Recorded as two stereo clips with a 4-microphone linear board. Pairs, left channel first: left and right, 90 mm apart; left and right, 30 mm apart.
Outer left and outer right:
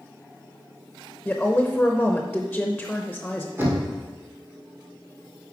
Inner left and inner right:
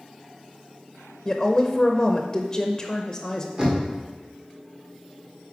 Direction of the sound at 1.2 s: 10° left (ahead or behind).